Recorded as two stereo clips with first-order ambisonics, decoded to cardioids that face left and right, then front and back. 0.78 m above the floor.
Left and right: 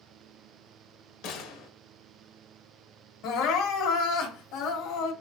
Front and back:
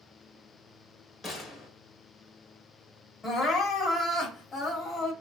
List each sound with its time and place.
1.2 s a gunshot: 70° left, 0.8 m
3.2 s crying: 70° left, 1.0 m